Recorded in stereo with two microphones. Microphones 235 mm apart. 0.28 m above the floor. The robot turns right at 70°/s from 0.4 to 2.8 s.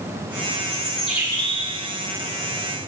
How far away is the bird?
About 2.5 m.